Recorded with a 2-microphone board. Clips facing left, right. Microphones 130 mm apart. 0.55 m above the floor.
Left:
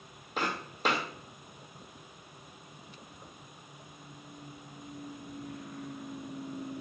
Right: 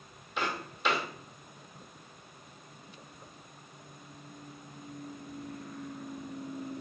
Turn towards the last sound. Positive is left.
turn(degrees=40)  # may be behind; listen again after turning